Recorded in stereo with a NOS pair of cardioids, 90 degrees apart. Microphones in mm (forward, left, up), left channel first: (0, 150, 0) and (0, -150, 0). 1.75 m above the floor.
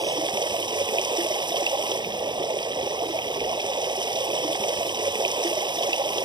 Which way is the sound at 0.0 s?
15° right.